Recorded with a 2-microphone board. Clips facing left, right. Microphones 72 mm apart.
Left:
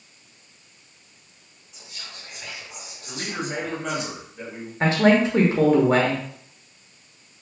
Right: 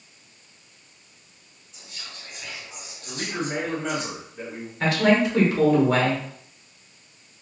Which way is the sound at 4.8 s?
30° left (ahead or behind).